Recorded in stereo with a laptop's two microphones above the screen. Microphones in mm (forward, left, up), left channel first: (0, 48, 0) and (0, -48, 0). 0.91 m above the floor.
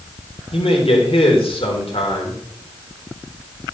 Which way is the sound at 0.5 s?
80° left.